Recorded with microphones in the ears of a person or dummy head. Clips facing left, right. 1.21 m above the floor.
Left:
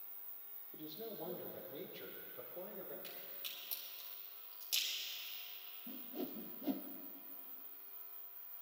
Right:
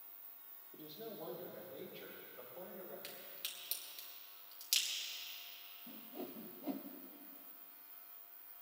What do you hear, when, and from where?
0.7 s a man speaking: 10° left (ahead or behind), 2.5 m; by 2.9 s 30° left (ahead or behind), 3.5 m
3.0 s a crack: 30° right (ahead or behind), 3.5 m
5.9 s a whoosh: 15° left (ahead or behind), 0.9 m